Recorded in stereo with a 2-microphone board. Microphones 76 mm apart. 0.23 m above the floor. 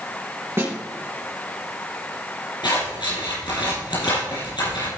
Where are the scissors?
80° left, 4.5 m.